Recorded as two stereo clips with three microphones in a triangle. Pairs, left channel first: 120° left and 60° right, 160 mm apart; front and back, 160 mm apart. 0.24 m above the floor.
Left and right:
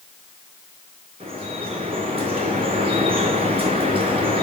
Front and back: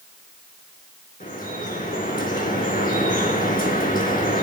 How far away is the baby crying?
No baby crying in this recording.